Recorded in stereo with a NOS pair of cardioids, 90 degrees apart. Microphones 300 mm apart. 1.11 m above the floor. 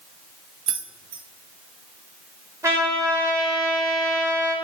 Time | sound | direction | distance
0.7 | keys jangling | 65° right | 0.6 m
2.6 | a trumpet | 10° right | 1.0 m